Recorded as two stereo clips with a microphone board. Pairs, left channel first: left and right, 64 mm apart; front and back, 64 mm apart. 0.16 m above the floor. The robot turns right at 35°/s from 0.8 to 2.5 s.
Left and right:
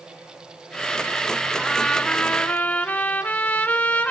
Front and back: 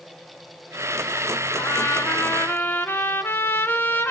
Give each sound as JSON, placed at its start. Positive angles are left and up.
{"t": 1.6, "sound": "a trumpet", "azimuth_deg": 5, "distance_m": 1.1}